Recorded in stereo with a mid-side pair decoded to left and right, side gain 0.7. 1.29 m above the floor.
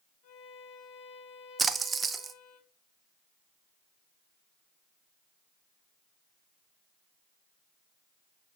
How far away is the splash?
About 0.8 m.